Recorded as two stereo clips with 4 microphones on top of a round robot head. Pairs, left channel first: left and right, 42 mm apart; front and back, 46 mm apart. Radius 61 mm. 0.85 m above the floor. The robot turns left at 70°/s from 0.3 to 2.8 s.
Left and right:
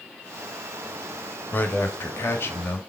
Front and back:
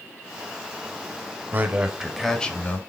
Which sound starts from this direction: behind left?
A man speaking, at 1.5 s.